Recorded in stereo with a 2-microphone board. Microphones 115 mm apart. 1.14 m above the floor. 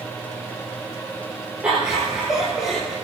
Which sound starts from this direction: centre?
Laughter, at 1.6 s.